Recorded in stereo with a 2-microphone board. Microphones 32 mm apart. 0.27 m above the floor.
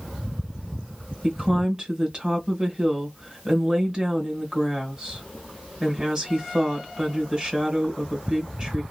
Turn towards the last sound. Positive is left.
turn(degrees=-30)  # may be behind; listen again after turning